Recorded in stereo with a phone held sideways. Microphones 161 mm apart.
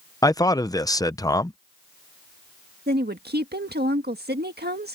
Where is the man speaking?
25° left (ahead or behind).